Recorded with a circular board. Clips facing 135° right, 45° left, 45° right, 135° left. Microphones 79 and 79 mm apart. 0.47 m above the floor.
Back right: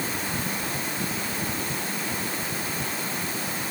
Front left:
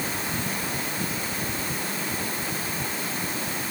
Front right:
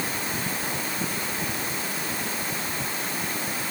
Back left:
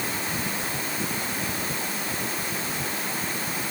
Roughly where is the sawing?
I don't hear sawing.